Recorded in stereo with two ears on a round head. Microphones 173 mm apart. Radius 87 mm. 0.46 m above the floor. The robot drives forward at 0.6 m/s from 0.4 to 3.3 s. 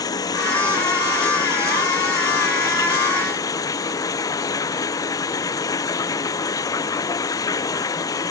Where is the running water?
20° left (ahead or behind).